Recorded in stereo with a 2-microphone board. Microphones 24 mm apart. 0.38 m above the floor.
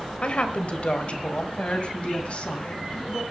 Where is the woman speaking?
50° left (ahead or behind), 1.2 m.